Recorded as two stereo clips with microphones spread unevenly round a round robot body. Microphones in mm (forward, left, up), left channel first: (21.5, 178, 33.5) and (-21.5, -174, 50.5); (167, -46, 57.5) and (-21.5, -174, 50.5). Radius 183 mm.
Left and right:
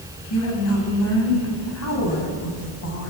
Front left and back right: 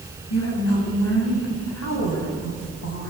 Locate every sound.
0.3 s a woman speaking: 35° left, 5.5 m